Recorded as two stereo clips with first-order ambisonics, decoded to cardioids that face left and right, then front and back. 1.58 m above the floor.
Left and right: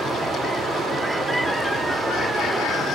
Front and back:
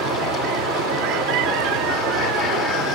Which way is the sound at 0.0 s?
Straight behind.